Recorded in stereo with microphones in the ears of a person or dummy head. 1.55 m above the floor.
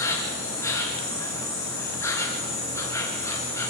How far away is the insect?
About 3 m.